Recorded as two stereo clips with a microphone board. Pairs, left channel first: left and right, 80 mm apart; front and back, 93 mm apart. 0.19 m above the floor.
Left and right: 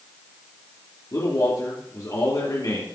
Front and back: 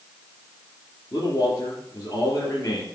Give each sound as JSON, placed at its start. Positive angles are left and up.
{"t": 1.1, "sound": "a man speaking", "azimuth_deg": 50, "distance_m": 4.0}